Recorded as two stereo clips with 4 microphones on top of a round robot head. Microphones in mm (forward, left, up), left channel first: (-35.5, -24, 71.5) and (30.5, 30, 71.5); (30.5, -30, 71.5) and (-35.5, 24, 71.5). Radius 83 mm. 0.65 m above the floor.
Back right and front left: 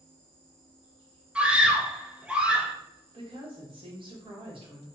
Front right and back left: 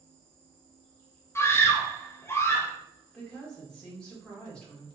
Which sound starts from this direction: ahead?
An insect, at 0.0 s.